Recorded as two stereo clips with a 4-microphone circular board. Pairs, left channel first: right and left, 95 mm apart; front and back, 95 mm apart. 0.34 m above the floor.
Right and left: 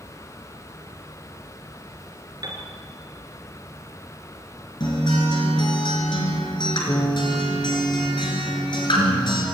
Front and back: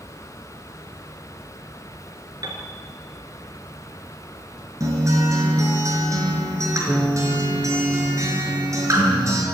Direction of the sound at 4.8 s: 125° right.